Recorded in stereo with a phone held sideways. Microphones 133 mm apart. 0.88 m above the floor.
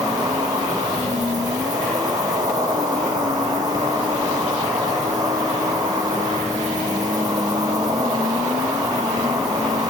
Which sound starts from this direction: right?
An insect, at 0.0 s.